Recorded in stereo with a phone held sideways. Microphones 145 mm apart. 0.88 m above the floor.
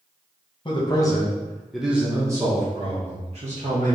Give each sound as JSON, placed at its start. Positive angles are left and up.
{"t": 0.7, "sound": "a man speaking", "side_deg": 35, "distance_m": 1.0}